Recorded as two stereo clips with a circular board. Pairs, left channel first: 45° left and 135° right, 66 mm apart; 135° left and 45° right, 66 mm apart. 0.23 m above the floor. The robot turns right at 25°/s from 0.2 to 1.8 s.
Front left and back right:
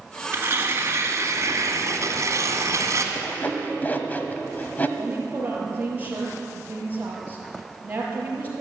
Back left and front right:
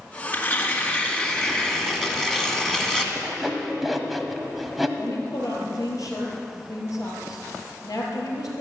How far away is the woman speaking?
About 4.5 m.